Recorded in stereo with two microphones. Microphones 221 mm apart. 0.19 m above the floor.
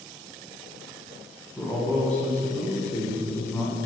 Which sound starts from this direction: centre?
A man speaking, at 1.6 s.